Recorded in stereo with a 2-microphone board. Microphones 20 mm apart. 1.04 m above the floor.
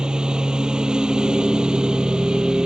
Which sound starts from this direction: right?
A lawn mower, at 0.0 s.